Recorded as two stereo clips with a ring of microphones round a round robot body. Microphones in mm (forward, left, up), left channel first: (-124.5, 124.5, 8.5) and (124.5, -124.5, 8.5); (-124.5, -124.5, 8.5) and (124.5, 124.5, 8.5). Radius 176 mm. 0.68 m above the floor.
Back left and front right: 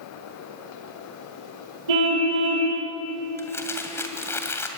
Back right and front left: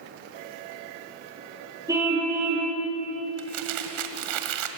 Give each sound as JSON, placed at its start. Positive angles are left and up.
{"t": 1.9, "sound": "a car horn", "azimuth_deg": -35, "distance_m": 8.5}
{"t": 3.4, "sound": "crumpling", "azimuth_deg": 50, "distance_m": 2.0}